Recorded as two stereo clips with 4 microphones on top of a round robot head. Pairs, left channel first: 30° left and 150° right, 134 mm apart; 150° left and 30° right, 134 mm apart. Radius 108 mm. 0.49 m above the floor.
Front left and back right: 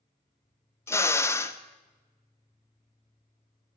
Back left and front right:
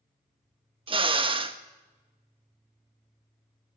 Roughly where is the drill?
Ahead right.